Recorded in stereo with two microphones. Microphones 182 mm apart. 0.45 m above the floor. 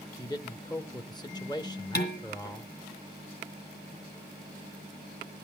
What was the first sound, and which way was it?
A man speaking, 25° left (ahead or behind).